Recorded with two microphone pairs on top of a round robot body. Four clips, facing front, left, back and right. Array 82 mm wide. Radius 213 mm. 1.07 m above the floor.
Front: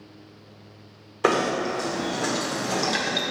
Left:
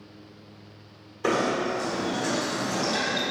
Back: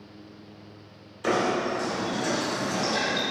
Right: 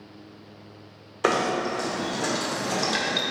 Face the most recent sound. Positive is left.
turn(degrees=-35)